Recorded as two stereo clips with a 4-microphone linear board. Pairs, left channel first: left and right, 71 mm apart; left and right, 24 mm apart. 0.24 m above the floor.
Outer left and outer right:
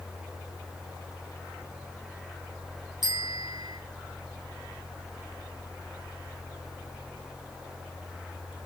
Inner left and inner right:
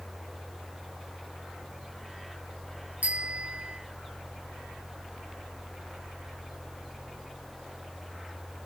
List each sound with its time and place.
3.0 s a bicycle bell: 70° right (ahead or behind), 4 m